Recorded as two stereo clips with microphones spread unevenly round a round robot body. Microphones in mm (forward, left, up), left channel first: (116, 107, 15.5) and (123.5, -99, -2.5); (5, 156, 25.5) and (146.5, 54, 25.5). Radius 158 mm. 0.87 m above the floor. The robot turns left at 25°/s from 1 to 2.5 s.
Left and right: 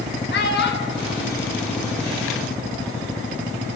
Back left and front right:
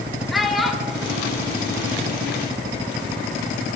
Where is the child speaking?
55° left, 1.4 m; by 2.4 s 20° left, 1.4 m.